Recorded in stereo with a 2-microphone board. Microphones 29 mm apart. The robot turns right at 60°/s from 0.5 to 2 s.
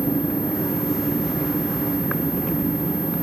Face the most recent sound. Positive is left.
turn(degrees=165)